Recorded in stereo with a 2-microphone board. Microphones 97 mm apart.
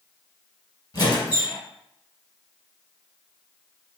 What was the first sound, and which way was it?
A squeak, 40° left (ahead or behind).